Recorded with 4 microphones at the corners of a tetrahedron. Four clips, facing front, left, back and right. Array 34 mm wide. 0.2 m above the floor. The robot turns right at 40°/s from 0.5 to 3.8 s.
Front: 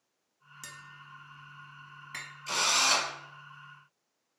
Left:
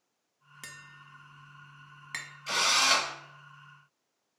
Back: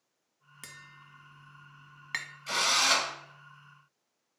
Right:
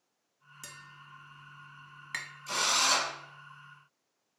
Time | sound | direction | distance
0.6 | tapping | 120° left | 0.6 m
2.5 | a drill | 115° left | 1.8 m